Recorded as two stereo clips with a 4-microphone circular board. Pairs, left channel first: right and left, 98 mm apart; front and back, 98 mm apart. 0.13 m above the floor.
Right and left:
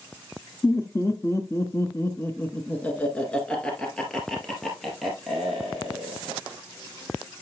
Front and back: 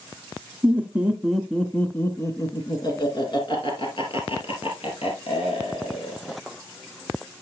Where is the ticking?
No ticking in this recording.